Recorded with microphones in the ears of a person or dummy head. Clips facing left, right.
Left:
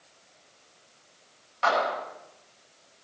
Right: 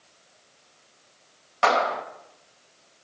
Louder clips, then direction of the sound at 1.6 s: Right 3 dB; 65° right (ahead or behind).